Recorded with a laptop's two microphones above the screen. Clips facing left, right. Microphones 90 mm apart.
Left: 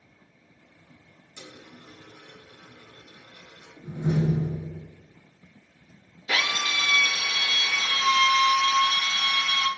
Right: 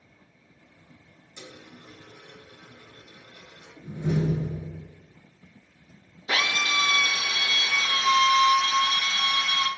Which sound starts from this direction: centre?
A dropped coin, at 1.4 s.